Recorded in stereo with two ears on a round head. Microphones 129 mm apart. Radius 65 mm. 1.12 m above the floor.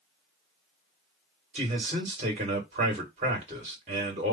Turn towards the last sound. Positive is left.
turn(degrees=-50)  # may be behind; listen again after turning